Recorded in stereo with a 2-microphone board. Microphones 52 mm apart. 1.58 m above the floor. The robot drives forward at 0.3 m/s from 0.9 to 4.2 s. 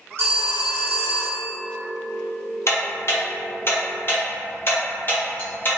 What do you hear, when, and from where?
0.2 s a phone ringing: 40° right (ahead or behind), 1.0 m
2.7 s ticking: 60° left (ahead or behind), 0.7 m; by 5.8 s 40° left (ahead or behind), 0.9 m